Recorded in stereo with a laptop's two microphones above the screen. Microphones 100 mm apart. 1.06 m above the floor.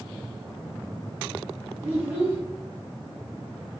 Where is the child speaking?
30° right (ahead or behind), 0.7 m.